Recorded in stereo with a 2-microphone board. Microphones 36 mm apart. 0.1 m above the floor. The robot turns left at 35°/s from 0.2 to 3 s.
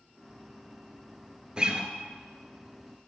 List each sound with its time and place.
1.6 s a guitar: 25° right (ahead or behind), 0.5 m; by 1.9 s 20° right (ahead or behind), 0.5 m